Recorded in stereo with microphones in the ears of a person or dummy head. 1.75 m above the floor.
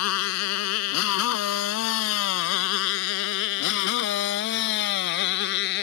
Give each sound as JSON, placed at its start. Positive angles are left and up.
{"t": 0.0, "sound": "a motorcycle", "side_deg": 80}